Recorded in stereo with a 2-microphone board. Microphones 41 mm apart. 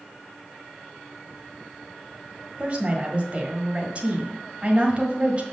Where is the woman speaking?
35° right (ahead or behind), 1.5 m.